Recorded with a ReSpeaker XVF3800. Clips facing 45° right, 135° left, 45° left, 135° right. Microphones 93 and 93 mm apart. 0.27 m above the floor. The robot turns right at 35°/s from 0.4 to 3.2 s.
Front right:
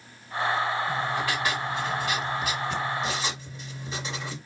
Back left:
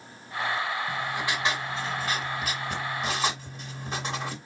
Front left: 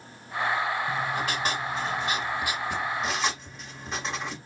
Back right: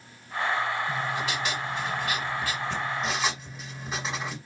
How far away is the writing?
About 1.2 m.